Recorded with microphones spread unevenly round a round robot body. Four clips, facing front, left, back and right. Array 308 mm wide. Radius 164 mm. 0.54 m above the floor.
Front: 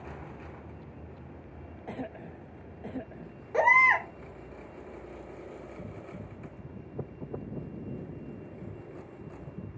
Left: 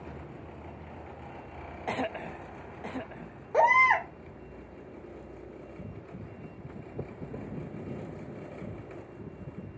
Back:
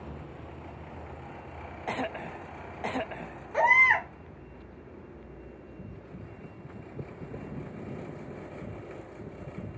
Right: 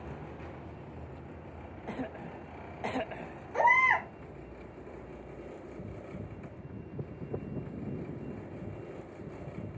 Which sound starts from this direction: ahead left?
A baby crying, at 3.5 s.